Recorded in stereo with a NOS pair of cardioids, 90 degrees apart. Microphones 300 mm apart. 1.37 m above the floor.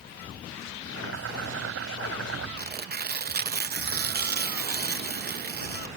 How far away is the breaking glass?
No breaking glass in this recording.